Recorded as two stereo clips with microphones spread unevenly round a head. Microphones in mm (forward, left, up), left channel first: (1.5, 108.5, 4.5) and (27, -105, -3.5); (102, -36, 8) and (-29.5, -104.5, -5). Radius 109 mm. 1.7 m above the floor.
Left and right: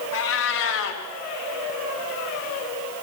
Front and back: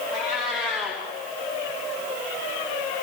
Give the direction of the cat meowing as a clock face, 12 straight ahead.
8 o'clock.